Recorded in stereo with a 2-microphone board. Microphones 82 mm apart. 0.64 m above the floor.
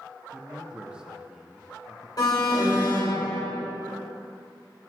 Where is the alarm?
55° left (ahead or behind), 1.6 m.